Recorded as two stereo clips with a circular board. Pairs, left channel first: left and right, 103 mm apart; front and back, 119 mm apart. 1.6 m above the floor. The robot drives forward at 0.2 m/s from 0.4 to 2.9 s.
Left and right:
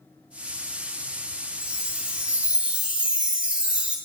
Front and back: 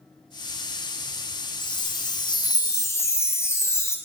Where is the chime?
10° right, 0.7 m; by 4.0 s 25° right, 0.5 m.